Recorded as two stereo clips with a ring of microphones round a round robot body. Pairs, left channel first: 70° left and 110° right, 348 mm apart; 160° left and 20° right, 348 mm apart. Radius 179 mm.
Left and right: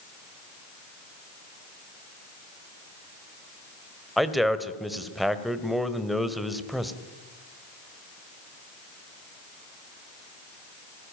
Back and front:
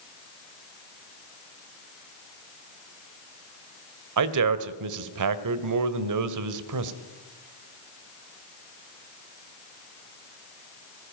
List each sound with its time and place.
4.2 s a man speaking: 20° right, 1.6 m